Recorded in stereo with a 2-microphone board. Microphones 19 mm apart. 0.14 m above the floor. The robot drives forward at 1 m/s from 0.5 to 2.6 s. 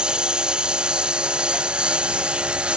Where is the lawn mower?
60° right (ahead or behind); by 2.8 s 85° right.